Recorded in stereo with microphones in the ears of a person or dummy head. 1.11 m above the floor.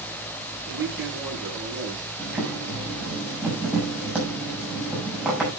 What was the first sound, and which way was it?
A man speaking, 10° right (ahead or behind).